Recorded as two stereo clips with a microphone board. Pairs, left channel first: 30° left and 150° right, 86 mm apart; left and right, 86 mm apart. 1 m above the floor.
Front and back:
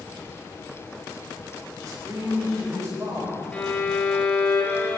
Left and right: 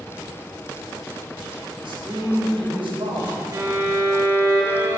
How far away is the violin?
About 1.9 m.